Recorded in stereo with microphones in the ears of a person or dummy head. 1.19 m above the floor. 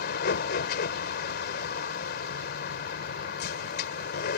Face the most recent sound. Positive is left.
turn(degrees=65)  # may be behind; listen again after turning